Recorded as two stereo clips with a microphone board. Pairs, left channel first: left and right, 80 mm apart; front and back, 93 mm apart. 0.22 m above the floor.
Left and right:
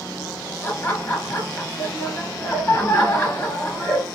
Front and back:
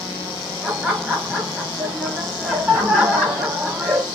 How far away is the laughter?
About 1.1 m.